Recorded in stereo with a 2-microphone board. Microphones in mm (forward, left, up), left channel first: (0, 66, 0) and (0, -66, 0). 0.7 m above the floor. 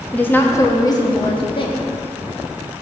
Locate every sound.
0.1 s a woman speaking: 10° left (ahead or behind), 0.9 m; by 1.9 s 45° left (ahead or behind), 1.4 m